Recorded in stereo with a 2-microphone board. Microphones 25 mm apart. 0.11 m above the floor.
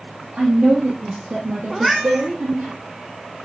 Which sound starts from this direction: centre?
A cat meowing, at 1.7 s.